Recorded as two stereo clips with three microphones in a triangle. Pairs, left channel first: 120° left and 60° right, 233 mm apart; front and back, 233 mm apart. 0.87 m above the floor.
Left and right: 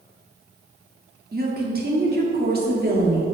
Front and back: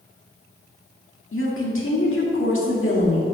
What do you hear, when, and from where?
1.3 s a woman speaking: 15° right, 2 m